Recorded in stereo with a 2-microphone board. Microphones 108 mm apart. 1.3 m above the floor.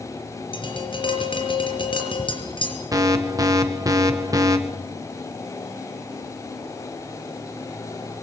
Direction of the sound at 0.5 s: 50° left (ahead or behind).